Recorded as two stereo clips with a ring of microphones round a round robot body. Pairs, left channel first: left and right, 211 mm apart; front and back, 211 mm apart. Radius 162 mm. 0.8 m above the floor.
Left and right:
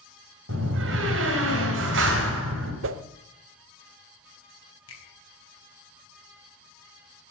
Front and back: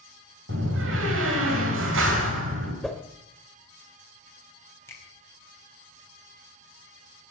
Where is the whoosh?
90° right, 0.7 m.